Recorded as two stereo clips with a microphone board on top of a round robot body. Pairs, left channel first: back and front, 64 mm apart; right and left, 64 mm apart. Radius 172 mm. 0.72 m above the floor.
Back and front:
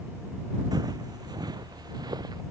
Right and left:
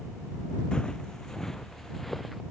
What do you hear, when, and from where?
0.7 s footsteps: 10° right; by 2.4 s straight ahead